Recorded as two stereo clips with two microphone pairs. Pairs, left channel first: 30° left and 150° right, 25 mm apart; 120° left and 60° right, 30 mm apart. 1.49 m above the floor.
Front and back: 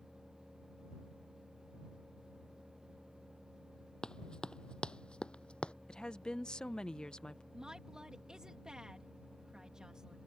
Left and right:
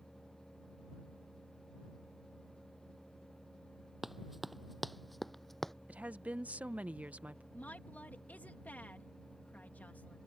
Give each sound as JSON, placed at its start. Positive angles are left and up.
{"t": 4.0, "sound": "running footsteps", "azimuth_deg": 20}
{"t": 5.9, "sound": "a woman speaking", "azimuth_deg": -20}
{"t": 7.5, "sound": "a woman speaking", "azimuth_deg": 150}